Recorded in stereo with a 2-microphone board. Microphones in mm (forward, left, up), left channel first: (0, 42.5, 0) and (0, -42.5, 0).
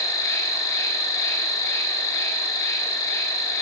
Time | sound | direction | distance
0.0 | an insect | 35° left (ahead or behind) | 1.0 m